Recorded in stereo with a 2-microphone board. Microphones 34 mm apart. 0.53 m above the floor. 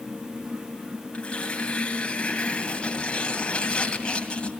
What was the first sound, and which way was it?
Tearing paper, 35° left (ahead or behind).